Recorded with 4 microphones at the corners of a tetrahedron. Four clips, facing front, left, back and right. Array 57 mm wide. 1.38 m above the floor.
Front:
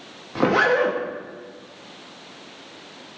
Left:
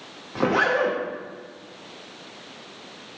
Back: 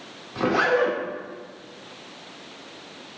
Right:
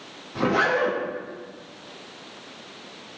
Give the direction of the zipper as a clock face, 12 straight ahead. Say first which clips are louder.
Left 1 dB, front 2 dB; 11 o'clock.